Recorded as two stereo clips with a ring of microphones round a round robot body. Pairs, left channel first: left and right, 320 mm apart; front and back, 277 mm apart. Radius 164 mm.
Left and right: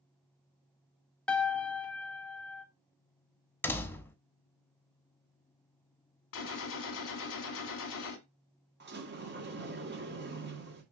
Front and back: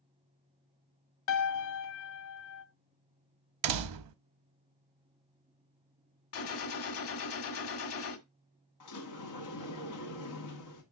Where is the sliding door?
30° right, 2.0 m.